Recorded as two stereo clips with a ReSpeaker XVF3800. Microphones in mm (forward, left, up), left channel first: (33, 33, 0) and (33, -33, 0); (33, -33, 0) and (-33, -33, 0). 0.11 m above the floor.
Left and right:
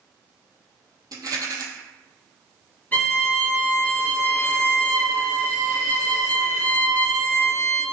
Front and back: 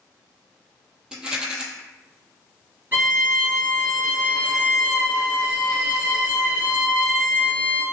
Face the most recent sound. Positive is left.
turn(degrees=135)